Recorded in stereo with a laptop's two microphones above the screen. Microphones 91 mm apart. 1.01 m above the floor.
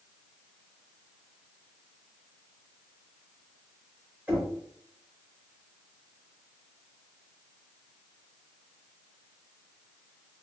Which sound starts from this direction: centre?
Knocking, at 4.3 s.